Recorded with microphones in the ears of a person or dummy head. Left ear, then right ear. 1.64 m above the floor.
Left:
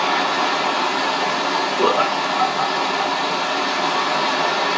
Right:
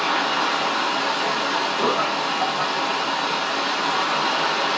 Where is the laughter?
70° left (ahead or behind), 0.8 m.